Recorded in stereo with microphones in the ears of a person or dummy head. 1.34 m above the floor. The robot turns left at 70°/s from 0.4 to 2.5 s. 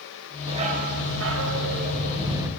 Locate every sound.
0.5 s a dog barking: 30° right, 2.5 m; by 2.5 s 170° right, 2.5 m